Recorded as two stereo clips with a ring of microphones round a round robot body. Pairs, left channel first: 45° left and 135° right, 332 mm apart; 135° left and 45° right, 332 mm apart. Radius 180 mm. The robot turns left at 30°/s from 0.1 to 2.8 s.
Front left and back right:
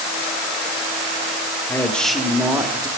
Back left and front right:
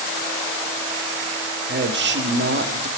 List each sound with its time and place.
1.7 s a man speaking: 30° right, 1.3 m; by 2.9 s 65° right, 1.3 m